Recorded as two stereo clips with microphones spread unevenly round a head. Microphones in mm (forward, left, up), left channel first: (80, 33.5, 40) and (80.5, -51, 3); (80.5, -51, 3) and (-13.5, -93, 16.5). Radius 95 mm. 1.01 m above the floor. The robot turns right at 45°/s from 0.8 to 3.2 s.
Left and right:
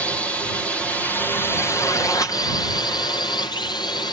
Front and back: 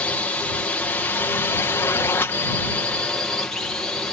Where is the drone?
20° right; by 4.1 s 85° left.